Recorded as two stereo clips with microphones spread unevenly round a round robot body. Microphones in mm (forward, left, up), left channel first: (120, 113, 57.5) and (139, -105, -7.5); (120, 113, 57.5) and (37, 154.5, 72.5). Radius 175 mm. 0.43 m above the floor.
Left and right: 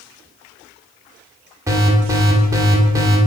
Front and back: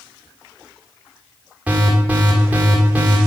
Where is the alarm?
125° right, 1.6 m.